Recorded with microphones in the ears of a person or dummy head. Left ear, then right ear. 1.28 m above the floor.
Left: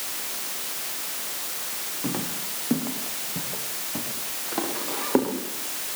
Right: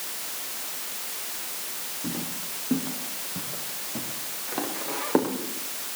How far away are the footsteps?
About 3.5 m.